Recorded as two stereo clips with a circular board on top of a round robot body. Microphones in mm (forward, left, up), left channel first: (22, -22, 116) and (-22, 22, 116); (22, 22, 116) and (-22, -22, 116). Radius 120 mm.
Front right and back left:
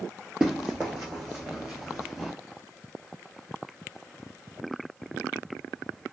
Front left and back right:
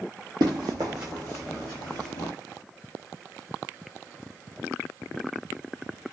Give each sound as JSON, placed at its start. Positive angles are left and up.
{"t": 0.4, "sound": "running footsteps", "azimuth_deg": -145, "distance_m": 0.7}